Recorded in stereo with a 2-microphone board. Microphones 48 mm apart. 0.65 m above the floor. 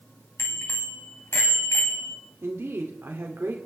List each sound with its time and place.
0.4 s a bicycle bell: 80° left, 3 m; by 2.2 s 60° left (ahead or behind), 2.5 m
2.4 s a woman speaking: 65° right (ahead or behind), 2.0 m